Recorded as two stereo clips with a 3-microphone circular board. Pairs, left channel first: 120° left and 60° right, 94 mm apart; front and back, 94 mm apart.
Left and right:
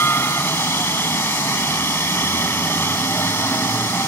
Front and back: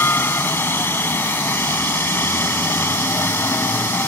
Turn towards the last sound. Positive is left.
turn(degrees=60)